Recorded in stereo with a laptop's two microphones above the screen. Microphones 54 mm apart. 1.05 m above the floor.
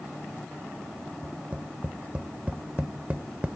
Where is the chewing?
No chewing in this recording.